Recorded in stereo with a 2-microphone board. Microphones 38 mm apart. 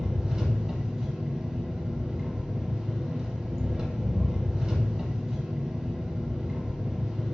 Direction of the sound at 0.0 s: 15° right (ahead or behind).